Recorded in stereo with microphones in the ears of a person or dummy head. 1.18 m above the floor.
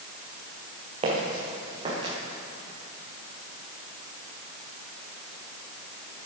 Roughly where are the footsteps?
Right.